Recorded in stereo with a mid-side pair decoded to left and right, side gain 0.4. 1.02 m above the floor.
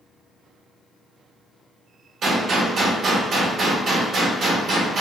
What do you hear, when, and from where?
2.2 s a gunshot: 65° right, 2.0 m